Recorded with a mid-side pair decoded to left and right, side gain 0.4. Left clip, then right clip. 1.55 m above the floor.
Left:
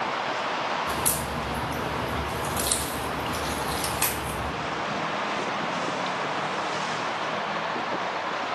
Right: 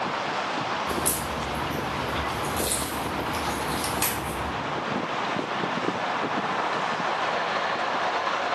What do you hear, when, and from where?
0.9 s a crack: 20° left, 0.9 m